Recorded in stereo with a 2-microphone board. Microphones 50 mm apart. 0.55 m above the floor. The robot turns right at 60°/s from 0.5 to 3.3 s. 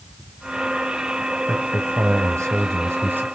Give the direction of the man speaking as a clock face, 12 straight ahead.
5 o'clock.